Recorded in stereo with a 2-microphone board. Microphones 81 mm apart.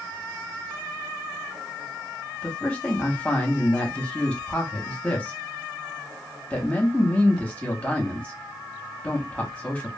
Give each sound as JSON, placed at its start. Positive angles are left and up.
{"t": 2.4, "sound": "a man speaking", "side_deg": 15, "distance_m": 1.0}